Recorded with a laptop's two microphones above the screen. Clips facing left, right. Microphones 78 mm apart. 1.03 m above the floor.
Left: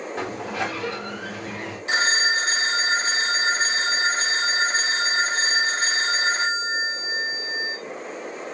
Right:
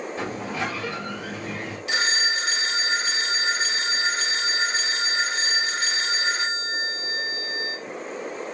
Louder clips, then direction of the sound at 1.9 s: Left 4 dB; 35° left (ahead or behind).